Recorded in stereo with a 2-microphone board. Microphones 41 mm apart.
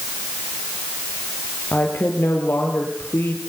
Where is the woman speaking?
70° left (ahead or behind), 6 m.